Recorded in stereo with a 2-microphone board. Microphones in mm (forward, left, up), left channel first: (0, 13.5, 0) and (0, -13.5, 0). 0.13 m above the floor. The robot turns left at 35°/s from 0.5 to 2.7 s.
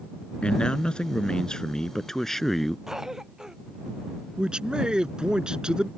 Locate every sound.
0.4 s a man speaking: 90° left; by 2.8 s 10° left
2.9 s a cough: 20° right (ahead or behind)
4.4 s a man speaking: 35° right (ahead or behind)